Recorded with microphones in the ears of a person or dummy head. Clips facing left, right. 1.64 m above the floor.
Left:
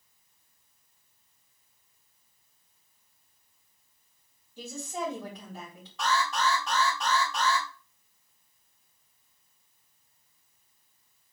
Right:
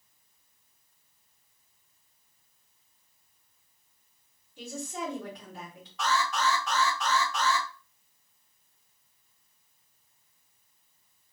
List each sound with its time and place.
4.6 s a woman speaking: 40° left (ahead or behind), 2.5 m
6.0 s an alarm: 35° left (ahead or behind), 2.5 m